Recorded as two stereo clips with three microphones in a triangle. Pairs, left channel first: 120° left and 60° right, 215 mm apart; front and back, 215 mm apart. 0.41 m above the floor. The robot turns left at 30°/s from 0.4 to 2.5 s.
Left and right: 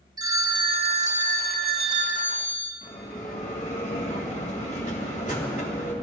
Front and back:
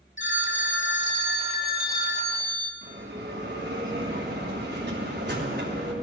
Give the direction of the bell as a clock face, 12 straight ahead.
6 o'clock.